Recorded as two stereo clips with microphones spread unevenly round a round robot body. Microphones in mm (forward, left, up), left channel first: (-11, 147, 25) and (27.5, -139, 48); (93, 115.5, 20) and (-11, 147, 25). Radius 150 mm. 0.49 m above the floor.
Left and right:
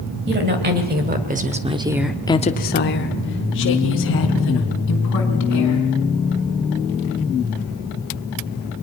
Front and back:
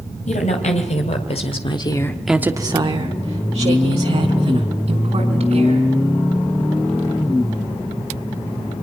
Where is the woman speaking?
25° right, 2.5 m; by 5.9 s 150° left, 5 m.